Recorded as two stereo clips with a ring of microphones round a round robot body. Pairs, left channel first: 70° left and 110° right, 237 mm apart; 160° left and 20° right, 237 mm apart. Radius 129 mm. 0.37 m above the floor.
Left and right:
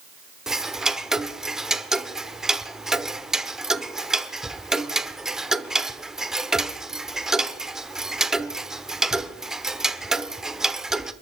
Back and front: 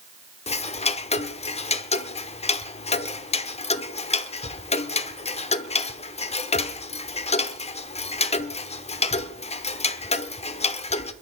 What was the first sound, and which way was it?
Ticking, 165° left.